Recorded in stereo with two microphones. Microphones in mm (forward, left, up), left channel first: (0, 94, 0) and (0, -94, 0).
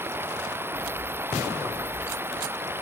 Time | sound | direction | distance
0.0 | running water | 10° right (ahead or behind) | ?